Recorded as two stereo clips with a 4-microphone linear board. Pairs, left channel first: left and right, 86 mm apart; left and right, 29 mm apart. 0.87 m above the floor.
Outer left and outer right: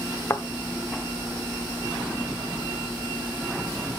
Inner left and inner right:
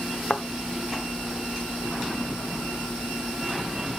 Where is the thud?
30° left (ahead or behind), 0.7 m.